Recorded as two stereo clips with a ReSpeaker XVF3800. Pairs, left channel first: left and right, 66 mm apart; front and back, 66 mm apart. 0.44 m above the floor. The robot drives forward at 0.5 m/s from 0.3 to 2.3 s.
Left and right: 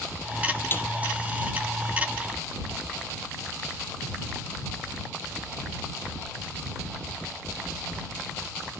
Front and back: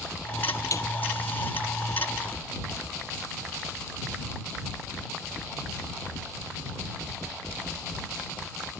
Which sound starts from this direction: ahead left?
A snare drum, at 0.7 s.